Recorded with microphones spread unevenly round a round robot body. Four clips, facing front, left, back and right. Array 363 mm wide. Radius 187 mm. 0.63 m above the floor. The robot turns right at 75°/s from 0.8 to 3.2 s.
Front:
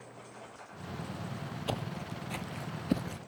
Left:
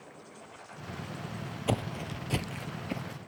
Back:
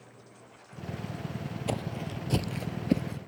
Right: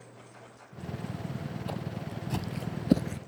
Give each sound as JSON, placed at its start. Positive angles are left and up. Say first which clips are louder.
{"t": 1.7, "sound": "footsteps", "louder": "left 9 dB, back 4 dB", "azimuth_deg": 100}